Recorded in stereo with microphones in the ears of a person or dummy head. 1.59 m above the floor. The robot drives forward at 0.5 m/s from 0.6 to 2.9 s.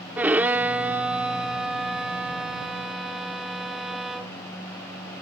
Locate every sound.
0.2 s a violin: 5° right (ahead or behind)